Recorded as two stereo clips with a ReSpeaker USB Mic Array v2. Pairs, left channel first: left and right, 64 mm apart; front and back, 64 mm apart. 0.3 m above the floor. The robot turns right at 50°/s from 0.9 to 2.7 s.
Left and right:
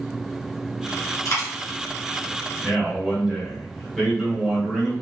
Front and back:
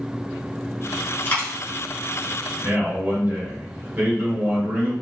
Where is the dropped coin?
60° left, 1.3 m; by 1.5 s 75° left, 1.3 m.